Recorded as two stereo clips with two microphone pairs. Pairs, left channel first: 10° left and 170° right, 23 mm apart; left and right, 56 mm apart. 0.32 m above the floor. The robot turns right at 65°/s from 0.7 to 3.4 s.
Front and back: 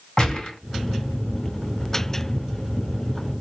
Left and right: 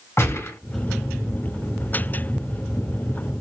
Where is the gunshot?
65° left, 3 m.